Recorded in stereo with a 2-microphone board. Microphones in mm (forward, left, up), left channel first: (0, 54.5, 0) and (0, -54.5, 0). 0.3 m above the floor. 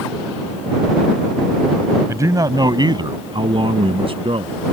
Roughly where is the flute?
I don't hear a flute.